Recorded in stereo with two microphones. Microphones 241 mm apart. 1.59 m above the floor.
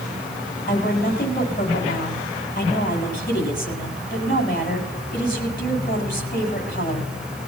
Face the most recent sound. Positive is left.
turn(degrees=40)  # may be behind; listen again after turning